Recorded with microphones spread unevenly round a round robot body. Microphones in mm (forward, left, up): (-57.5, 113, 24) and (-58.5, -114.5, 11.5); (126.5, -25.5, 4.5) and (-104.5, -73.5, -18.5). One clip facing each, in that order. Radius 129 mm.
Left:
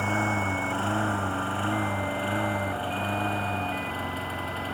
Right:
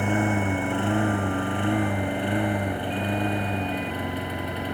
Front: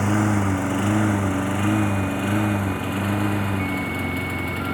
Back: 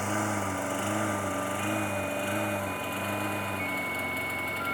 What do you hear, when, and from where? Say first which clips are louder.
0.0 s a lawn mower: right 5 dB, front 11 dB; 15° right